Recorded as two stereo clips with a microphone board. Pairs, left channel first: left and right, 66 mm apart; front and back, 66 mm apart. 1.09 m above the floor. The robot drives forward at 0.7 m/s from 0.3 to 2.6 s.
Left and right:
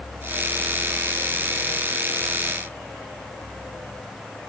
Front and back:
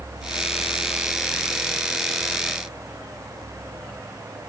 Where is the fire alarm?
I don't hear a fire alarm.